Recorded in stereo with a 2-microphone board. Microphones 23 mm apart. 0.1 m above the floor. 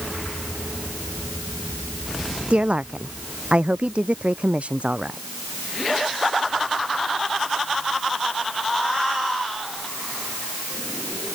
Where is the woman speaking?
55° right (ahead or behind).